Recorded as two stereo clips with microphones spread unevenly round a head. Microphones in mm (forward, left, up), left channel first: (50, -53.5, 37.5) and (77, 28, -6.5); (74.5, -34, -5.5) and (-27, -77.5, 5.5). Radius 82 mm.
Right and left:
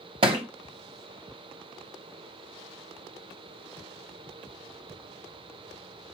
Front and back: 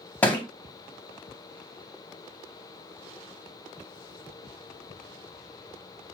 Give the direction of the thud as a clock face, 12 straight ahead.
9 o'clock.